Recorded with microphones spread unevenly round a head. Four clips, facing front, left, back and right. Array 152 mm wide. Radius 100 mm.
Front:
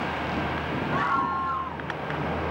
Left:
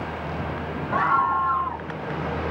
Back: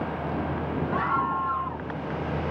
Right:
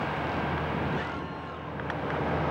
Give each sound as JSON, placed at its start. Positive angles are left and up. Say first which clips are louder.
{"t": 0.9, "sound": "a scream", "louder": "left 13 dB, front 1 dB", "azimuth_deg": 100}